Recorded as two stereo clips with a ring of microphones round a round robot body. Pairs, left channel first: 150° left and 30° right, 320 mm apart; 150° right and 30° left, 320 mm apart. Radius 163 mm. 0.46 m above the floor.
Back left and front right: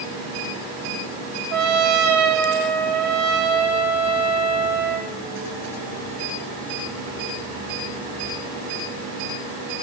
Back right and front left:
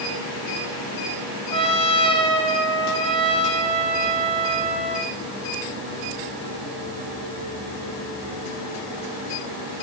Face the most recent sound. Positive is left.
turn(degrees=-75)